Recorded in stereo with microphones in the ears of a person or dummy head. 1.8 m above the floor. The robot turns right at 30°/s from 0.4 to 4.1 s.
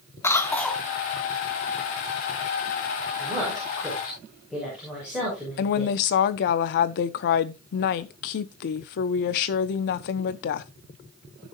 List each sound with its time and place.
0.2 s a cough: 15° left (ahead or behind), 1.2 m; by 0.8 s centre (ahead or behind), 1.2 m
3.2 s a woman speaking: 30° right (ahead or behind), 6 m; by 5.9 s 5° right (ahead or behind), 6 m
5.6 s a woman speaking: 55° left (ahead or behind), 0.8 m